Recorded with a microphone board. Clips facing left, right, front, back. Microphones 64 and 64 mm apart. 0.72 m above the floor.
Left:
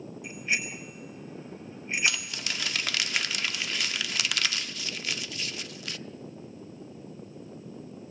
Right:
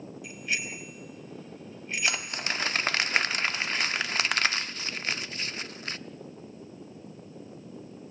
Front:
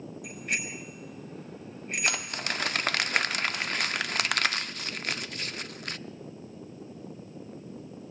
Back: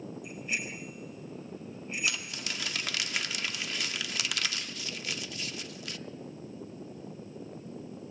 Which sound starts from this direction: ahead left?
A bicycle bell, at 0.2 s.